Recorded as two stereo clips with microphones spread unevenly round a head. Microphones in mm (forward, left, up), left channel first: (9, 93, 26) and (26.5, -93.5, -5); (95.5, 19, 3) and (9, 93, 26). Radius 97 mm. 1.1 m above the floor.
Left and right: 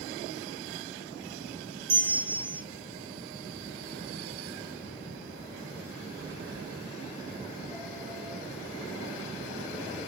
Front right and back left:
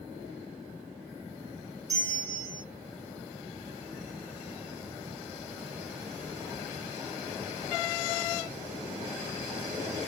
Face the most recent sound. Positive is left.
turn(degrees=-145)